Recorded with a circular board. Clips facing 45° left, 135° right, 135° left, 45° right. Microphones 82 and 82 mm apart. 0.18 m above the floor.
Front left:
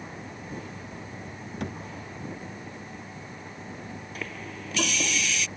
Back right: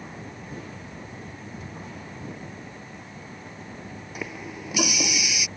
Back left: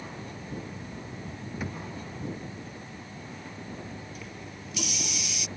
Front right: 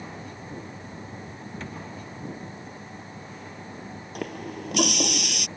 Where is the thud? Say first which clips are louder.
Front left 5 dB, back left 2 dB; 55° left.